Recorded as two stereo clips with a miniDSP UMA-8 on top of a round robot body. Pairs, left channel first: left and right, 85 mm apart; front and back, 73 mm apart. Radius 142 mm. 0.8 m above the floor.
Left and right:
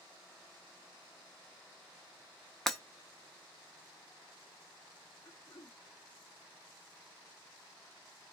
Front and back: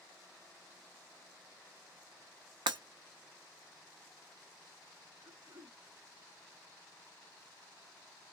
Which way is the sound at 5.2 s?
145° left.